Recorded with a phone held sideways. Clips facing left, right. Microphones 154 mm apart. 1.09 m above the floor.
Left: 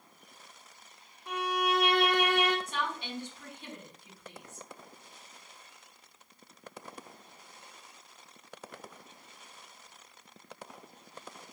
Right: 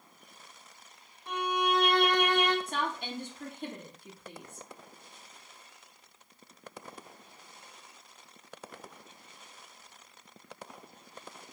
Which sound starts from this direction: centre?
A violin, at 1.3 s.